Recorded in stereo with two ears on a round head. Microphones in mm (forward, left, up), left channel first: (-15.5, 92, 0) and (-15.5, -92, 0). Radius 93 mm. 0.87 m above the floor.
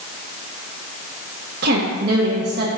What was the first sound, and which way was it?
A woman speaking, 50° right (ahead or behind).